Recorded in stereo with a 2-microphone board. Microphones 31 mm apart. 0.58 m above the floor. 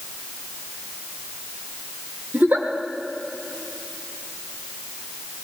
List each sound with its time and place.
2.3 s a giggle: 65° right (ahead or behind), 1.4 m